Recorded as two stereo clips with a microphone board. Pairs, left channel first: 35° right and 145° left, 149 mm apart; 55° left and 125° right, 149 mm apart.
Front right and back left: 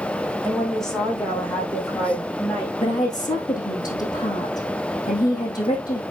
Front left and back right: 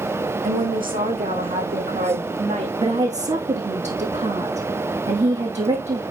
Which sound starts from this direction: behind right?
A woman speaking, at 0.4 s.